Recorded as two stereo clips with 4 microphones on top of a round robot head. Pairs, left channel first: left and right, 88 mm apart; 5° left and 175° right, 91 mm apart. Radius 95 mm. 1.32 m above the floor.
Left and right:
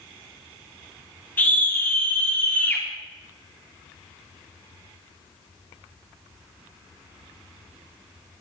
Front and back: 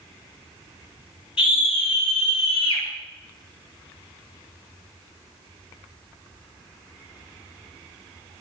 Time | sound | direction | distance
1.4 | a scream | 20° left | 6.5 m